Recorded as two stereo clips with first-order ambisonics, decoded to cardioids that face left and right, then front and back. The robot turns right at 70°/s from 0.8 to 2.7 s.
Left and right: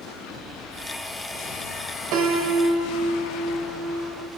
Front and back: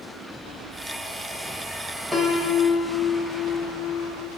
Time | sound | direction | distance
2.1 | a piano | 100° right | 1.7 m